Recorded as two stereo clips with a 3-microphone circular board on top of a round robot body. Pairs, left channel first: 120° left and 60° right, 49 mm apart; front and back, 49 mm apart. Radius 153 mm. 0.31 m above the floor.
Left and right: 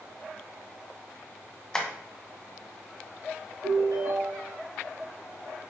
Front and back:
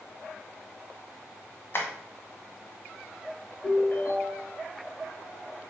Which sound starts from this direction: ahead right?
A ringtone, at 3.6 s.